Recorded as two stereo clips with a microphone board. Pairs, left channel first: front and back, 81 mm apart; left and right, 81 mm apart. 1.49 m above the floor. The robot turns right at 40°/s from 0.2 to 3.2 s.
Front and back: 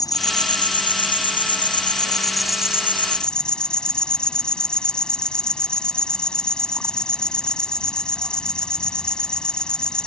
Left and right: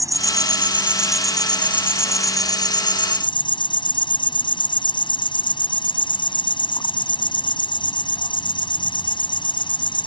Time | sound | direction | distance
0.0 | an insect | 40° right | ?